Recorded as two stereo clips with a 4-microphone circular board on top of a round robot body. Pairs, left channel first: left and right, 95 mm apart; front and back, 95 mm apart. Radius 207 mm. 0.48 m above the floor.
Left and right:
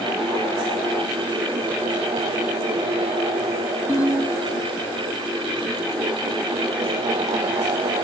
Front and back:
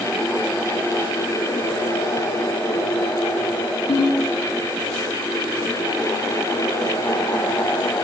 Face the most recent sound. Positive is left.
turn(degrees=30)